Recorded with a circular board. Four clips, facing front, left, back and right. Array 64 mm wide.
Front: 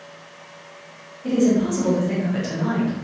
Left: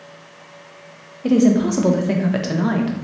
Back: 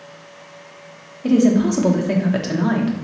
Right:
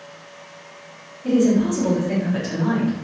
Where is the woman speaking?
125° left, 0.7 m.